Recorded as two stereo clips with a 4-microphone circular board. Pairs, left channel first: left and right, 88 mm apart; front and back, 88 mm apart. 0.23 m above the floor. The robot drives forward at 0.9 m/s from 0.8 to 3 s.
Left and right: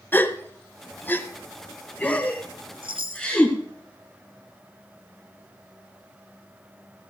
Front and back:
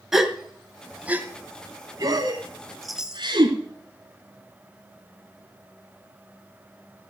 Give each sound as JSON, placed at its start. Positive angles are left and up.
{"t": 0.1, "sound": "a gasp", "azimuth_deg": 100, "distance_m": 1.1}
{"t": 2.8, "sound": "a chime", "azimuth_deg": -85, "distance_m": 0.9}